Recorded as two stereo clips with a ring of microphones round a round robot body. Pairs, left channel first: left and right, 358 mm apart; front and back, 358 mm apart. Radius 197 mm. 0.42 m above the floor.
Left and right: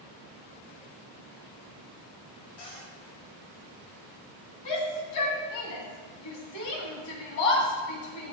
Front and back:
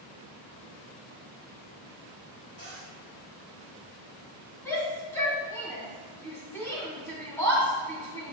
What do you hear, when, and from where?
2.6 s a cupboard door: 70° left, 3.5 m
4.7 s a shout: 85° left, 3 m